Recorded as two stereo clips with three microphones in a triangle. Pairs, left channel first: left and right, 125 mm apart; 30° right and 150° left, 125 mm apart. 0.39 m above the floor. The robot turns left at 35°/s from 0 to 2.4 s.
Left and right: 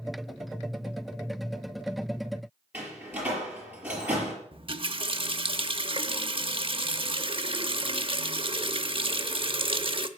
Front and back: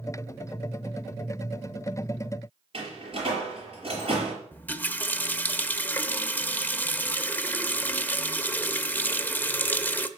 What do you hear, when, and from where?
2.7 s a door slam: 165° right, 5.5 m
4.5 s a running tap: 100° right, 0.7 m